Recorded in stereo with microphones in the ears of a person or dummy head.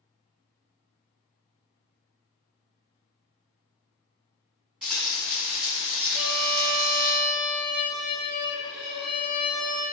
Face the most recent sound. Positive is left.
turn(degrees=-35)  # may be behind; listen again after turning